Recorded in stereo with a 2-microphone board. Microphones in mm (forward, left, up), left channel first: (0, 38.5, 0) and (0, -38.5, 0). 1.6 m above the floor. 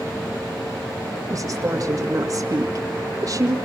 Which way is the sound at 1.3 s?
50° right (ahead or behind).